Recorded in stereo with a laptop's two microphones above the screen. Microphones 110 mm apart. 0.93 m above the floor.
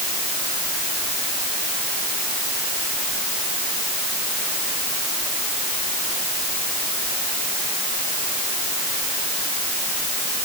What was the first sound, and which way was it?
Only background noise.